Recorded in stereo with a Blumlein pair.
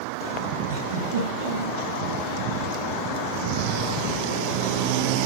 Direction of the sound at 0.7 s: 55° right.